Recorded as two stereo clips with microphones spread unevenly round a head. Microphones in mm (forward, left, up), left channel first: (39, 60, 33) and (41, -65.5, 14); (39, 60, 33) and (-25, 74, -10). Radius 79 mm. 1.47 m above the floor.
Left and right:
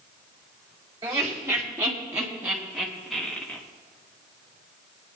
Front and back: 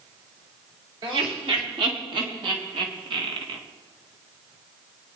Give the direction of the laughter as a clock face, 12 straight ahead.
5 o'clock.